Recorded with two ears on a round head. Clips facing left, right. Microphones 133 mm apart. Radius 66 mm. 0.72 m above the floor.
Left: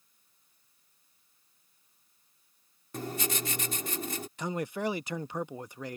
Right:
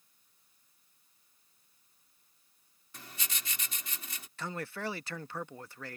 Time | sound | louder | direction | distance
2.9 | writing | left 14 dB | 40° left (ahead or behind) | ?
4.4 | a man speaking | left 5 dB | 15° left (ahead or behind) | ?